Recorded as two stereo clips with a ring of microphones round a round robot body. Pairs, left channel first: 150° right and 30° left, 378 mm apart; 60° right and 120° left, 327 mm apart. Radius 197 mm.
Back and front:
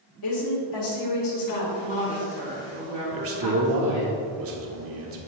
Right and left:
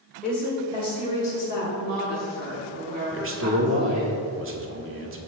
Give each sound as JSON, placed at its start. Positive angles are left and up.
{"t": 0.2, "sound": "a woman speaking", "azimuth_deg": -150, "distance_m": 1.6}
{"t": 1.8, "sound": "a woman speaking", "azimuth_deg": 145, "distance_m": 1.2}
{"t": 3.1, "sound": "a man speaking", "azimuth_deg": 75, "distance_m": 1.1}